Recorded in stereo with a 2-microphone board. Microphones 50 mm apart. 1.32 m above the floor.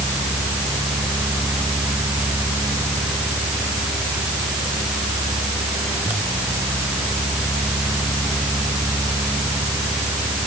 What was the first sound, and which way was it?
Only background noise.